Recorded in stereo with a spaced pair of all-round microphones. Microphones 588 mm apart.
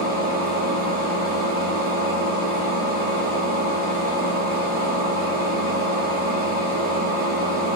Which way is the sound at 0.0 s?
15° right (ahead or behind).